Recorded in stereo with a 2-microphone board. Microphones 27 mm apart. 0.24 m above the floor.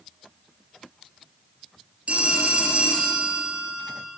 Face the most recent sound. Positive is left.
turn(degrees=-45)  # may be behind; listen again after turning